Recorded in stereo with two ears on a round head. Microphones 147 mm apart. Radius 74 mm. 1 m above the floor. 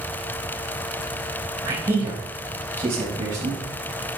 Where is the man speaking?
25° right (ahead or behind), 5 m; by 3.6 s 30° right (ahead or behind), 6.5 m.